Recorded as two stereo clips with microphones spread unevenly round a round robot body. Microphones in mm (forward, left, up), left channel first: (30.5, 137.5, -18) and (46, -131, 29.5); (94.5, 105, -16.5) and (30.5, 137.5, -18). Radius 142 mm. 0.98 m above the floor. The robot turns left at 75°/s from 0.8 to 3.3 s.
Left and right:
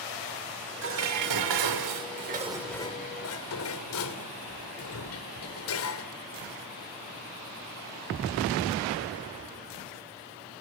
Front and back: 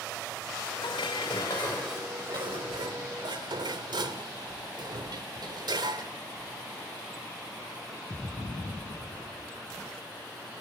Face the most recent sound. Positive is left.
turn(degrees=135)